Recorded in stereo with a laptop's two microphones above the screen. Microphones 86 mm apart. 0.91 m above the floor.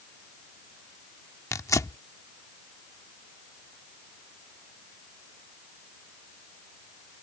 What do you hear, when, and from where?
1.5 s tearing paper: 40° left (ahead or behind)